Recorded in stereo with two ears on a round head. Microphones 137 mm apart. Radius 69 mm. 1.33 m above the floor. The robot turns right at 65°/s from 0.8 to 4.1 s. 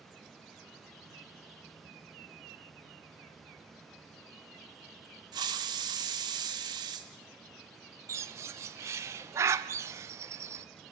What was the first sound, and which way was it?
A hiss, 30° right (ahead or behind).